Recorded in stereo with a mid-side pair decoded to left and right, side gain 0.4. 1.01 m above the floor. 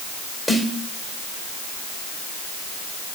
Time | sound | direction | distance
0.5 | a snare drum | straight ahead | 2.5 m